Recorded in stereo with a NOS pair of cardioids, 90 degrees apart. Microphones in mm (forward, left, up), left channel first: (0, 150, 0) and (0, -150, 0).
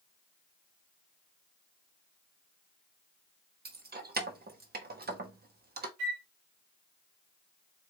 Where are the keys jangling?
30° right, 1.2 m.